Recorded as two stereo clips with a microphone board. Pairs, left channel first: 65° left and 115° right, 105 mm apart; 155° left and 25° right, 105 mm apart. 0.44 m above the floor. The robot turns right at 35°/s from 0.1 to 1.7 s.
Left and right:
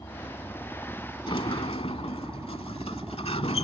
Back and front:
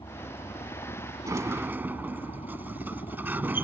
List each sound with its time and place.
0.0 s a helicopter: 120° left; by 3.6 s 175° left
1.3 s a sliding door: 35° left; by 3.6 s 50° left